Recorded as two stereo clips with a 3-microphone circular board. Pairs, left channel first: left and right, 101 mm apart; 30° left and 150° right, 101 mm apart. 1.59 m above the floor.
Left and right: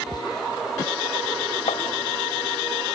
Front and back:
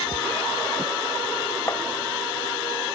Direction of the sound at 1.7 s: 90° left.